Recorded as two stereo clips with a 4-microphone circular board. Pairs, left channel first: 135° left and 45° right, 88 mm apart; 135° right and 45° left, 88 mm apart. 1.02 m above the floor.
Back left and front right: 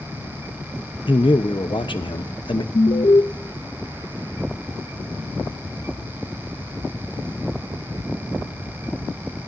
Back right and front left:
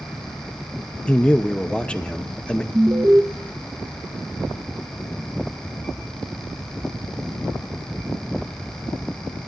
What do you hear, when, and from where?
1.1 s a man speaking: 150° left, 0.8 m
2.7 s an alarm: 115° left, 0.7 m